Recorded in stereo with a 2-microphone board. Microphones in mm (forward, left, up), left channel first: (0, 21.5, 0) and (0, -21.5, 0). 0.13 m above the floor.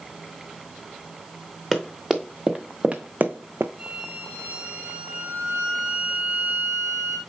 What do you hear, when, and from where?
1.7 s running footsteps: centre (ahead or behind), 1.3 m; by 3.7 s 70° right (ahead or behind), 0.5 m
3.8 s a violin: 25° right (ahead or behind), 1.9 m